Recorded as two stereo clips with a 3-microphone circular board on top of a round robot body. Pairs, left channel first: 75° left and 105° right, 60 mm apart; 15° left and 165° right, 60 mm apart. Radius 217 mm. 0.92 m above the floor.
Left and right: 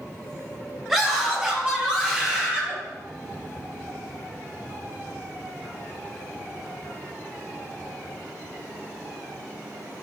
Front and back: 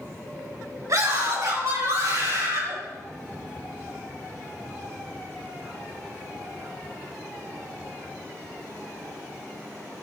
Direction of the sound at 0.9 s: 175° left.